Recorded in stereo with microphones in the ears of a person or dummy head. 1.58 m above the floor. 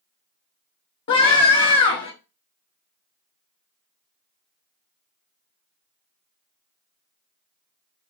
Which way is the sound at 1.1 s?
30° left (ahead or behind).